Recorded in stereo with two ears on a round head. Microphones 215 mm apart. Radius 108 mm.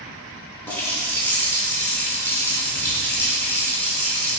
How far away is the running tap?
About 0.6 m.